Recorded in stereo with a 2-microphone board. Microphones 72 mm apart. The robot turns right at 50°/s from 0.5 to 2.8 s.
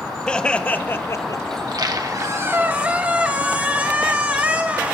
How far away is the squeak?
About 1.2 m.